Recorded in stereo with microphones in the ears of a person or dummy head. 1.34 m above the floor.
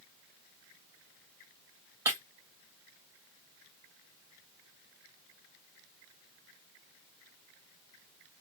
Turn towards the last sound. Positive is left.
turn(degrees=-20)  # may be behind; listen again after turning